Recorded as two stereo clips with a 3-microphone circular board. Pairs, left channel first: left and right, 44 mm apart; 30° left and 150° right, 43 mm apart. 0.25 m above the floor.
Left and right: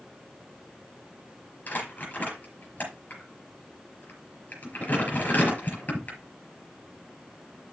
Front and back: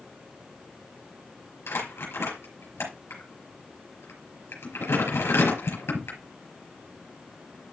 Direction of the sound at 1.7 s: 40° left.